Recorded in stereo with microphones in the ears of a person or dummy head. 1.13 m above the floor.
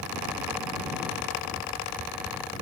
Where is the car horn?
I don't hear a car horn.